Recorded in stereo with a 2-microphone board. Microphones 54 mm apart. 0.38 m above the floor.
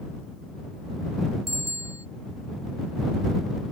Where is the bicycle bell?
75° left (ahead or behind).